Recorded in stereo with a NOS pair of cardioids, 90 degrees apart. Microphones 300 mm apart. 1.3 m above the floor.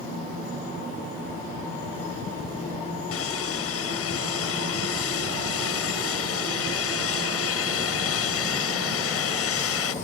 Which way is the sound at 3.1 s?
55° left.